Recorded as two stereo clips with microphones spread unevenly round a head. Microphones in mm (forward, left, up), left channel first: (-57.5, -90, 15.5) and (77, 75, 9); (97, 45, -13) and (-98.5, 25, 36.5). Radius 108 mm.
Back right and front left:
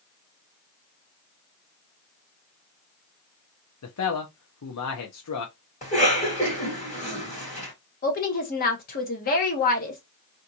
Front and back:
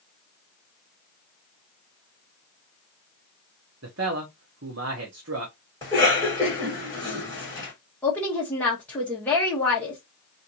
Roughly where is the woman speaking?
Right.